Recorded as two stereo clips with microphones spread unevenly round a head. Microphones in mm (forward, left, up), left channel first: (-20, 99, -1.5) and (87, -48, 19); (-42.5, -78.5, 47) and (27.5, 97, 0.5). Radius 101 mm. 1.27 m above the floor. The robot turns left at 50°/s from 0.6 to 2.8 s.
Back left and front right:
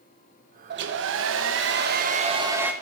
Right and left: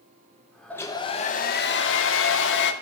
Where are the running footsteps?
No running footsteps in this recording.